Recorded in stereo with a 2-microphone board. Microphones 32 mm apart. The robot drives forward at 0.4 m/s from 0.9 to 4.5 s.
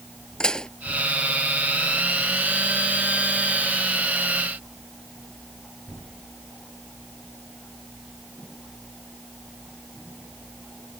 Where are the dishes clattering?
25° left (ahead or behind).